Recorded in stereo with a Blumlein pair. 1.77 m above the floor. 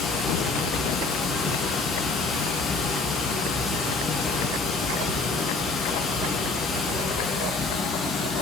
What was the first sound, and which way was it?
Running water, 20° left.